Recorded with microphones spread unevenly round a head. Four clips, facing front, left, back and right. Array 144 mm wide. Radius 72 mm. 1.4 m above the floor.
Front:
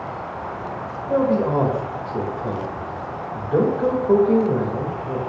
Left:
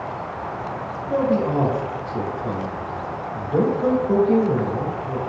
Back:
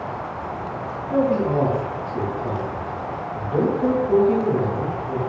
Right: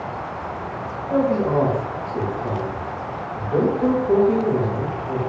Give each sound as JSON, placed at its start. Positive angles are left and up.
{"t": 1.1, "sound": "a man speaking", "azimuth_deg": -10, "distance_m": 2.0}